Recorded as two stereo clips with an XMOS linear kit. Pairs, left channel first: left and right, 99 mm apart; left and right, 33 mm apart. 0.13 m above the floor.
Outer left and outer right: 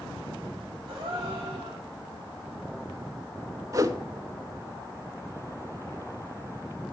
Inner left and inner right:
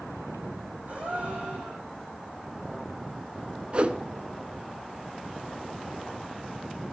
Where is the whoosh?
35° right (ahead or behind), 0.6 m.